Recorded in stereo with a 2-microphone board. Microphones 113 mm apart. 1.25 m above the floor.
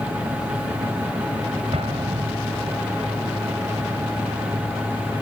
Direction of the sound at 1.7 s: 65° right (ahead or behind).